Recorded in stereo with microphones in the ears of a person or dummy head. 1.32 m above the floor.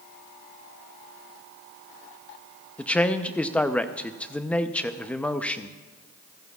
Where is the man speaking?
Centre (ahead or behind), 0.7 m.